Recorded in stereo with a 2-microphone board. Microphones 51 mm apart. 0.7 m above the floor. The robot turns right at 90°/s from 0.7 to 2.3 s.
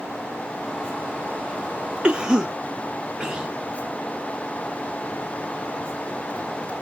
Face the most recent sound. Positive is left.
turn(degrees=-15)  # may be behind; listen again after turning